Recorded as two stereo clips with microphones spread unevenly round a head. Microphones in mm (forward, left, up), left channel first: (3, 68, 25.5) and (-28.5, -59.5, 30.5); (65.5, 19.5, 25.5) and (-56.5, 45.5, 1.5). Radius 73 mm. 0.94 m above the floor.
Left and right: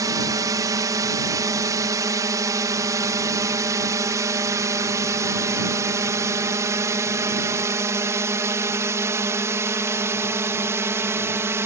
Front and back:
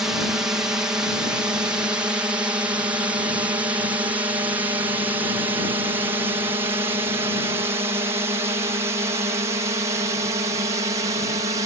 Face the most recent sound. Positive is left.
turn(degrees=-165)